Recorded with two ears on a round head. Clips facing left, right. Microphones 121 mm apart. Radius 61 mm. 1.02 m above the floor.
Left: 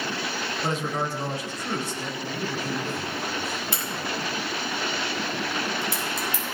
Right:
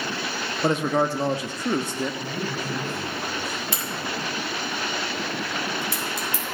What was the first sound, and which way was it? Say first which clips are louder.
A man speaking: right 7 dB; 45° right (ahead or behind).